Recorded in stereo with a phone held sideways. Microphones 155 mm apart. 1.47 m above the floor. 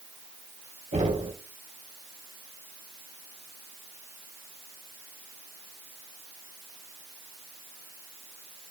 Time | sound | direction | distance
0.9 | knocking | 50° right (ahead or behind) | 4 m